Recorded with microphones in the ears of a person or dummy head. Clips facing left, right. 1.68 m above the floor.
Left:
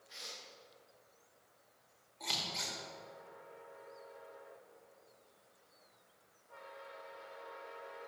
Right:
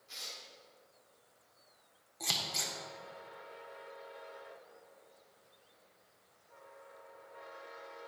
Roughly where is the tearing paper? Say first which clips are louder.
Even; right.